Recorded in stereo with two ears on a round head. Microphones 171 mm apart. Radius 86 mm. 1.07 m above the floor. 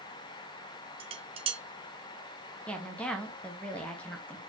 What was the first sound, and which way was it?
Dishes clattering, 30° right (ahead or behind).